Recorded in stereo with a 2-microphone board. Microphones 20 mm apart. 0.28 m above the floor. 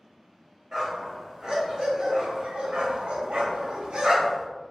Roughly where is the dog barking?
Centre.